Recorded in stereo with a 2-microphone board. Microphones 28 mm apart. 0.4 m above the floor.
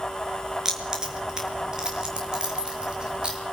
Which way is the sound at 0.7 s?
25° right (ahead or behind).